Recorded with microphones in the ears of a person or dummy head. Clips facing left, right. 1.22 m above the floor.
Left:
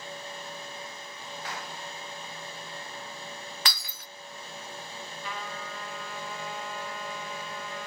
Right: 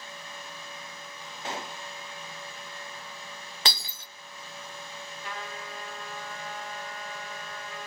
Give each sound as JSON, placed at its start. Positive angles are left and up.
{"t": 1.4, "sound": "a gunshot", "side_deg": -30, "distance_m": 0.6}
{"t": 3.6, "sound": "breaking glass", "side_deg": -20, "distance_m": 0.6}
{"t": 5.2, "sound": "a trumpet", "side_deg": 70, "distance_m": 3.0}